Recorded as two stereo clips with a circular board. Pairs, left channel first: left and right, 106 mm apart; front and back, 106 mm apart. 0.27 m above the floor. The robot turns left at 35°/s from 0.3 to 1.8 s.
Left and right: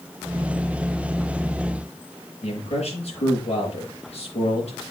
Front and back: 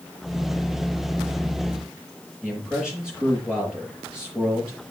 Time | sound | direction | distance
2.4 | a man speaking | 100° left | 6 m